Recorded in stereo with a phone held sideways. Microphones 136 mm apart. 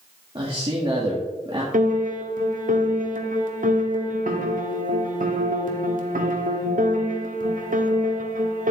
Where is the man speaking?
35° right (ahead or behind), 1.7 m.